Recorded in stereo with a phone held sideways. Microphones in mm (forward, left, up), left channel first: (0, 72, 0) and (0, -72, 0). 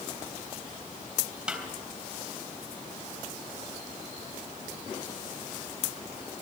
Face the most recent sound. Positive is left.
turn(degrees=-5)  # may be behind; listen again after turning